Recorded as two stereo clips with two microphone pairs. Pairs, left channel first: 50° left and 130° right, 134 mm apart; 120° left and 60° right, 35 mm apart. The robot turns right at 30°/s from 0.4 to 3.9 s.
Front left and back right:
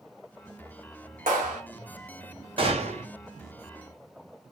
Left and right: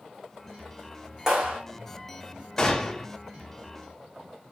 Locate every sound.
1.3 s a clap: 135° right, 2.5 m; by 1.6 s 125° right, 2.5 m
2.6 s a gunshot: 175° right, 1.0 m; by 3.1 s 160° right, 1.0 m